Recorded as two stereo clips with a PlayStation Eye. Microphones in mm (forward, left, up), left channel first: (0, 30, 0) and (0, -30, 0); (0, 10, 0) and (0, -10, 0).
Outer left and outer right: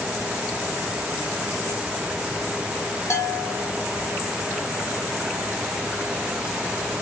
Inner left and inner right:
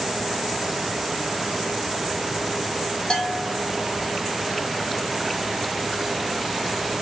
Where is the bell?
50° left (ahead or behind), 1.5 m.